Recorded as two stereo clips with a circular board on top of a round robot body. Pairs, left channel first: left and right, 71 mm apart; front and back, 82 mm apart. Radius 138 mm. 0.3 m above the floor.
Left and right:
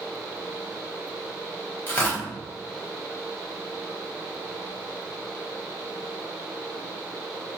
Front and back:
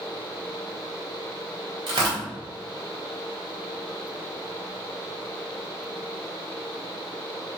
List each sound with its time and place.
1.9 s tearing paper: 155° left, 1.2 m